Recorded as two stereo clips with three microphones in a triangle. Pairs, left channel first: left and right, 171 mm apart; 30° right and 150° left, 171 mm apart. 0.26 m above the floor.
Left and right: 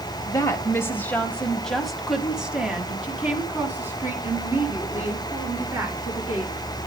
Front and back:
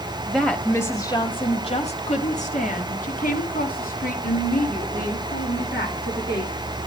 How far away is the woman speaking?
About 1.0 m.